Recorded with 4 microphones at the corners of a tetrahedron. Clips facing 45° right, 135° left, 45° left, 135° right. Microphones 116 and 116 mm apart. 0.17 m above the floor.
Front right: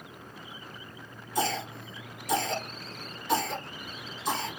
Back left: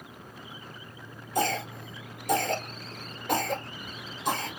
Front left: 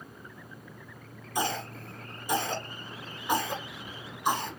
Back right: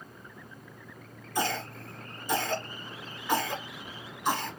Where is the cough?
120° left, 1.9 m.